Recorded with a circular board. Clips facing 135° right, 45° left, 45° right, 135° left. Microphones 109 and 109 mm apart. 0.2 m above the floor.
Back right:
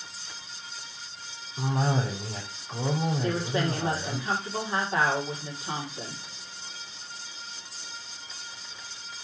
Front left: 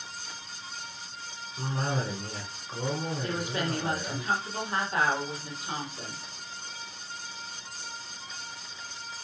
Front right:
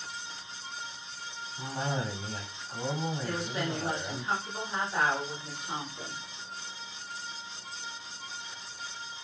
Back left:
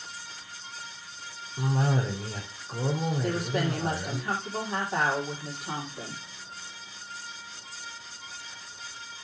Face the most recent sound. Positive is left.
turn(degrees=165)